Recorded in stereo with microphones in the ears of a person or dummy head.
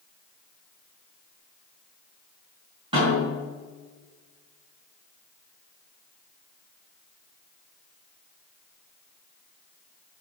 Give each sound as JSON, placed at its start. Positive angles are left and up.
{"t": 2.9, "sound": "a snare drum", "side_deg": -30, "distance_m": 4.0}